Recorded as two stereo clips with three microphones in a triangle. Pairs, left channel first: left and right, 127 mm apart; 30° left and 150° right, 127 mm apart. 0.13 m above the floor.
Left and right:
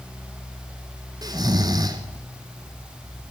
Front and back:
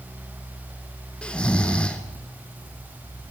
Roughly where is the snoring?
Ahead right.